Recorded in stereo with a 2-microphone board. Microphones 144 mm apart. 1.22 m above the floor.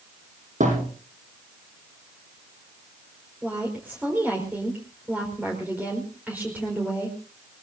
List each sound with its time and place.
0.6 s a thud: 60° right (ahead or behind), 8 m
3.4 s a woman speaking: 10° right (ahead or behind), 5 m